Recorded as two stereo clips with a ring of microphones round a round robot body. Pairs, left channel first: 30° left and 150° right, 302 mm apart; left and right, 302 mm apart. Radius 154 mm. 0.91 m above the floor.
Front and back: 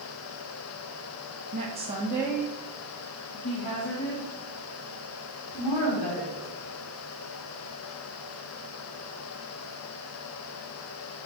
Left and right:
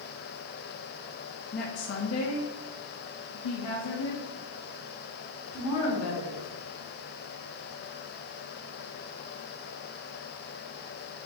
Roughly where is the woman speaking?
Behind left.